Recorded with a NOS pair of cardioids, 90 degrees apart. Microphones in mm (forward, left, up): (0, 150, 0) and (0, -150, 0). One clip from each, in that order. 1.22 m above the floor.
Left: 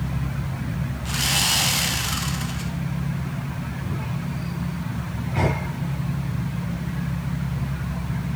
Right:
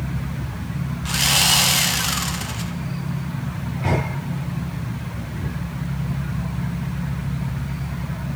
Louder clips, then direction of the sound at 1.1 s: Right 4 dB; 20° right.